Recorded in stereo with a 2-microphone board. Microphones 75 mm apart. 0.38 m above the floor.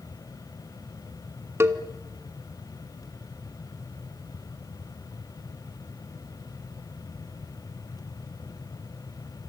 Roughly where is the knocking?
No knocking in this recording.